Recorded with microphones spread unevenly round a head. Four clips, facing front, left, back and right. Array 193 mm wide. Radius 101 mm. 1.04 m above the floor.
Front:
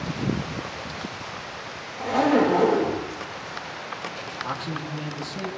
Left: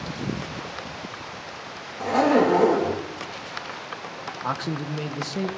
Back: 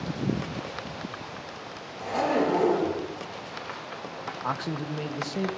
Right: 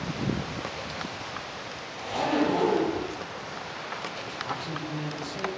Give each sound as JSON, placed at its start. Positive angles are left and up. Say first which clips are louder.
{"t": 2.0, "sound": "a zipper", "louder": "left 7 dB, front 5 dB", "azimuth_deg": 65, "distance_m": 6.0}
{"t": 4.4, "sound": "a man speaking", "louder": "left 6 dB, back 1 dB", "azimuth_deg": 105, "distance_m": 1.6}